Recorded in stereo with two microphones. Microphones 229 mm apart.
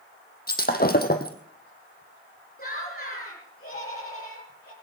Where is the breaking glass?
40° left (ahead or behind), 2.0 m.